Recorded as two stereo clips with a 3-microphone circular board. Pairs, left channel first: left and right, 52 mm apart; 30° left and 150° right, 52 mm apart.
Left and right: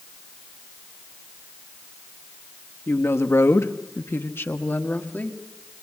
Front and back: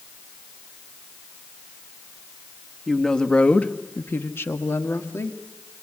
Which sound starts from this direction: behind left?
A woman speaking, at 2.9 s.